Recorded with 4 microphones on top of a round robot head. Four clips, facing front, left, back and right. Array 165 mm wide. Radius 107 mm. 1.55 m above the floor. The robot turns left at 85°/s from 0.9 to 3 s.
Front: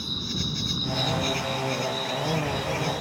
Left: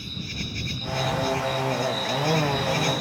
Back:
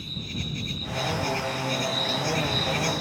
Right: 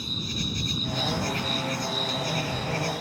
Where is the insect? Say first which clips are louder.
Right 2 dB, front 3 dB; 35° right; by 3.0 s 145° left.